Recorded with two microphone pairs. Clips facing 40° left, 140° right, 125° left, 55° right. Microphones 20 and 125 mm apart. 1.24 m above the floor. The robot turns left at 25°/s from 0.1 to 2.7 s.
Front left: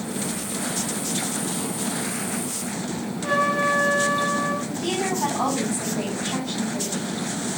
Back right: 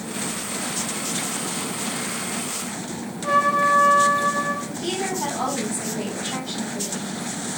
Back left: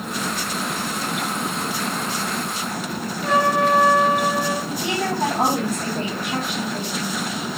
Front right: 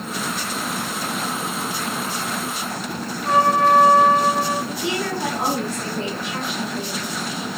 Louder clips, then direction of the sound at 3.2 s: Back right 3 dB, front right 2 dB; 125° left.